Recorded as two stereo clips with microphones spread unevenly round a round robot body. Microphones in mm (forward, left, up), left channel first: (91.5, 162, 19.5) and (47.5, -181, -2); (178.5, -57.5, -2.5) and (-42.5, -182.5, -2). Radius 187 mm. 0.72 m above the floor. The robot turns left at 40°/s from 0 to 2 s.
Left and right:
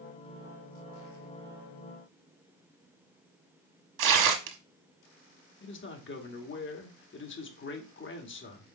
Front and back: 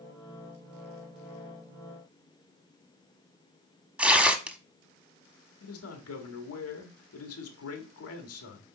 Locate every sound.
4.0 s tearing paper: 65° right, 1.4 m
5.6 s a man speaking: 25° left, 1.6 m